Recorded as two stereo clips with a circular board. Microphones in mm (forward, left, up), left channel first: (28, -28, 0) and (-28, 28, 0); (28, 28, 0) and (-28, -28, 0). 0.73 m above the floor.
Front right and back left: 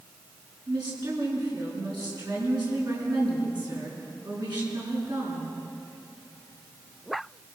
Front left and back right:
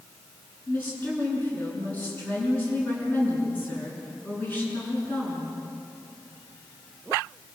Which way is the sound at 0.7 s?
110° left.